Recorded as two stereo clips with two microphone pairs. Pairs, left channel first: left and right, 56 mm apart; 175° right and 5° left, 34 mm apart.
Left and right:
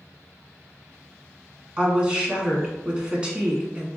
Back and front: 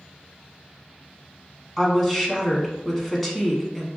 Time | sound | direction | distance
1.8 | a woman speaking | 95° right | 1.0 m